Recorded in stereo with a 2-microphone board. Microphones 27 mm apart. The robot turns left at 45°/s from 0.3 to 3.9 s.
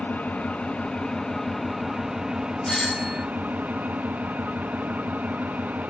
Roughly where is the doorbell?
Left.